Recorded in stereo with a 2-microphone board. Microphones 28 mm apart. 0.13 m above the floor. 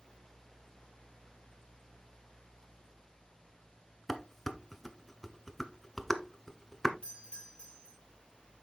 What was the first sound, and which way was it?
Dishes clattering, 10° left (ahead or behind).